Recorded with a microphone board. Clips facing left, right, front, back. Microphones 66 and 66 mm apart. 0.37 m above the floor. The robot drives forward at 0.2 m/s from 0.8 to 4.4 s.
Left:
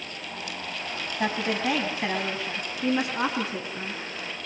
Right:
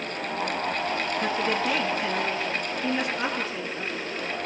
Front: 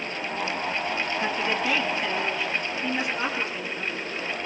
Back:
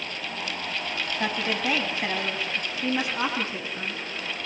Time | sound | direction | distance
1.2 | a woman speaking | 125° left | 8 m